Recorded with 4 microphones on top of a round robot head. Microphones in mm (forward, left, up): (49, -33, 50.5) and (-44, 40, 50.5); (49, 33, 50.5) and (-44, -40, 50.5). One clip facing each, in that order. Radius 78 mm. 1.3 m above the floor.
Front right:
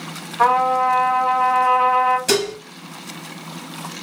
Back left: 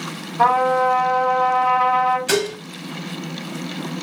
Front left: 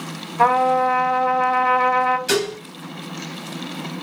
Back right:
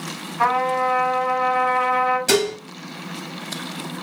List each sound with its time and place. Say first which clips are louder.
0.4 s a trumpet: even, front left 4 dB; 70° left, 2.5 m
2.3 s dishes clattering: even, back right 2 dB; 95° right, 1.7 m